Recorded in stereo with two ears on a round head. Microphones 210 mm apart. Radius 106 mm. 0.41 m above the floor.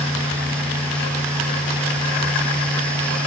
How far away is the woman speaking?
No woman speaking in this recording.